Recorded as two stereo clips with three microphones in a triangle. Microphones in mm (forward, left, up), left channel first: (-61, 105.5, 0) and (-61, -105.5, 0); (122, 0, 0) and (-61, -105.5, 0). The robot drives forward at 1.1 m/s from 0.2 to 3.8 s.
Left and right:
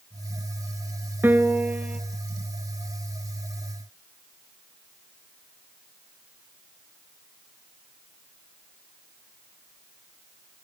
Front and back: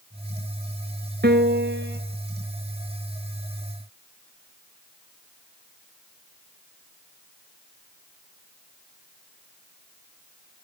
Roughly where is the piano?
Behind.